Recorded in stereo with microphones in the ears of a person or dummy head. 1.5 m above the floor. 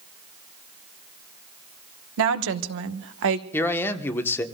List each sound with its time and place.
2.2 s a woman speaking: 65° right (ahead or behind), 1.1 m
3.5 s a man speaking: 15° left (ahead or behind), 1.1 m